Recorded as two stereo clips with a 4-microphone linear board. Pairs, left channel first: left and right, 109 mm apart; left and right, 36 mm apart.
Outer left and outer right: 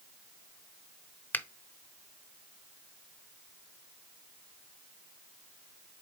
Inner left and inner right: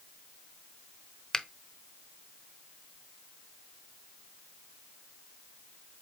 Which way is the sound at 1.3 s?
15° left (ahead or behind).